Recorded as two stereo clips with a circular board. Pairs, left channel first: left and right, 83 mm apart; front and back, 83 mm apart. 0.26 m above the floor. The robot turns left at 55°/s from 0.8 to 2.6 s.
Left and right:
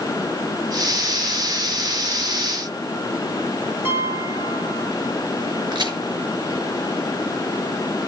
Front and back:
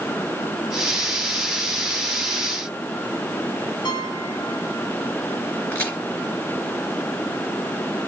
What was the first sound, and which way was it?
A piano, 25° right.